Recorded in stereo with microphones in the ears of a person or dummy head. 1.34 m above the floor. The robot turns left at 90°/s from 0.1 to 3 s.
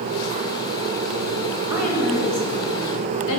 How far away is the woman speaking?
About 3 m.